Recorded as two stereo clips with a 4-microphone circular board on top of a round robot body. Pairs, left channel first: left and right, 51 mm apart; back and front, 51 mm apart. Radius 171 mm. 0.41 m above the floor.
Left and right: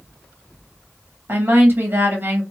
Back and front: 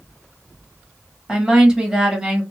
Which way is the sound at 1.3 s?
75° right.